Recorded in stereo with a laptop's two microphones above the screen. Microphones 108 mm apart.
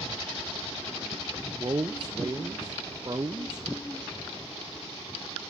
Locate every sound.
1.6 s a man speaking: 35° right (ahead or behind), 0.7 m